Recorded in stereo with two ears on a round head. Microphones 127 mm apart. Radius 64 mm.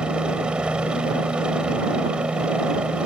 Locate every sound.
0.0 s a helicopter: 5° right (ahead or behind)